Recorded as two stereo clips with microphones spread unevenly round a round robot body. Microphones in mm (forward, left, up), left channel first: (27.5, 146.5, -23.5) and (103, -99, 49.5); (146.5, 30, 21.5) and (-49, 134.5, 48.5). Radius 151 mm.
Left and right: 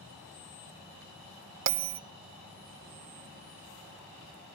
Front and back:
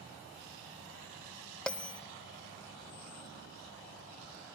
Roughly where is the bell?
Right.